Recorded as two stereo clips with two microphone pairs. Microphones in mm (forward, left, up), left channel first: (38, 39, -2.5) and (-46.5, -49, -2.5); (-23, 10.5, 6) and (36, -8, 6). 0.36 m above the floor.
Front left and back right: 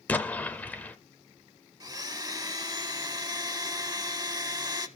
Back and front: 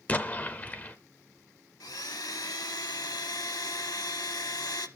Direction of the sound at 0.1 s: 115° left.